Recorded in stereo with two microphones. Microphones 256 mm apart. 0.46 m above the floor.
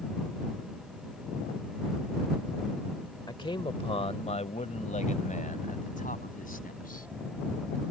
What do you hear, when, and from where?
3.3 s a man speaking: 15° left (ahead or behind); by 7.1 s 35° left (ahead or behind)